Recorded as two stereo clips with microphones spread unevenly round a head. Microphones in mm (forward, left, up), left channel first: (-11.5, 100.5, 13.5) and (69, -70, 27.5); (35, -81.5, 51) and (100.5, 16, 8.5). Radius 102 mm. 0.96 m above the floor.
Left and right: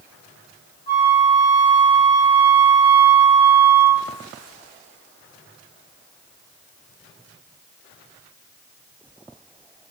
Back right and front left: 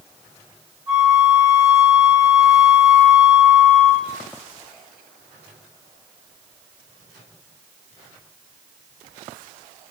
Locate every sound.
0.9 s a flute: 70° left, 1.7 m